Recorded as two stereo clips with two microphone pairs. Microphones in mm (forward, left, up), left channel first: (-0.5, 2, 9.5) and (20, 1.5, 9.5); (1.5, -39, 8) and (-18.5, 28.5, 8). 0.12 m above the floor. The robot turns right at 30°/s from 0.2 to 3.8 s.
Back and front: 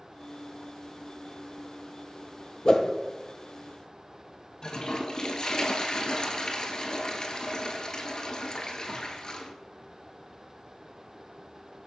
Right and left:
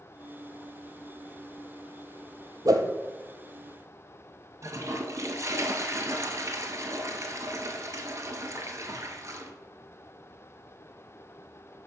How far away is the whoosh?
About 0.5 m.